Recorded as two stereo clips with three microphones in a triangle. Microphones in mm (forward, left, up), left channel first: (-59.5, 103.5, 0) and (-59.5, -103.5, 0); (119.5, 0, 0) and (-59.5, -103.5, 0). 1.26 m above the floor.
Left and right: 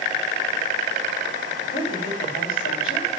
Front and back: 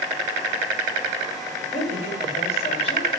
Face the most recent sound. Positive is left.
turn(degrees=90)